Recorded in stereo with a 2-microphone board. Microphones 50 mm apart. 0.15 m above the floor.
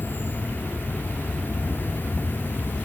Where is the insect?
40° left (ahead or behind), 0.9 m.